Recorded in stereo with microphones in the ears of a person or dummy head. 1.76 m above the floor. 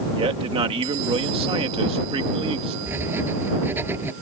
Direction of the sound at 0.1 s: 30° right (ahead or behind).